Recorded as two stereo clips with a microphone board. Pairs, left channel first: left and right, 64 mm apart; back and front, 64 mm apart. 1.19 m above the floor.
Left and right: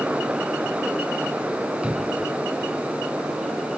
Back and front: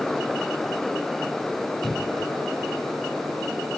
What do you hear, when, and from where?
1.8 s a cupboard door: 135° right